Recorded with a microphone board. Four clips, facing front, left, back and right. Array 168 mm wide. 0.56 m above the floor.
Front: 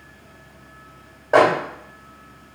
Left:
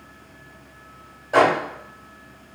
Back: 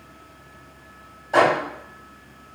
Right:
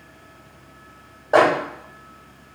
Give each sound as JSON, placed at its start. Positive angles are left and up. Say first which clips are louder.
{"t": 1.3, "sound": "a microwave", "louder": "right 1 dB, front 3 dB", "azimuth_deg": -40, "distance_m": 1.5}